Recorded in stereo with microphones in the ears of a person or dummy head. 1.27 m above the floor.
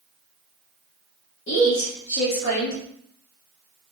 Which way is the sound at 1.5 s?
35° left (ahead or behind).